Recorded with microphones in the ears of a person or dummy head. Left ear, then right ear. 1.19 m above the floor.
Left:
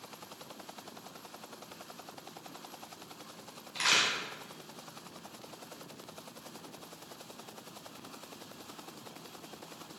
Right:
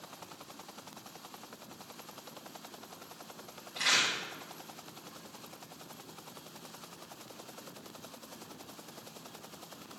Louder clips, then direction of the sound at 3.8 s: Left 1 dB; 65° left (ahead or behind).